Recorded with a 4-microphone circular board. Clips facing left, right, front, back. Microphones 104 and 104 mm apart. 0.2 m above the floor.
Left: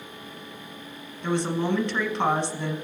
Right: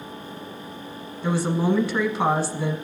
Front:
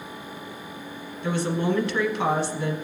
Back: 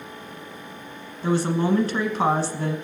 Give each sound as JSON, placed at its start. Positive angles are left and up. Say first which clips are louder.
{"t": 1.2, "sound": "a woman speaking", "louder": "right 3 dB, back 3 dB", "azimuth_deg": -170, "distance_m": 1.3}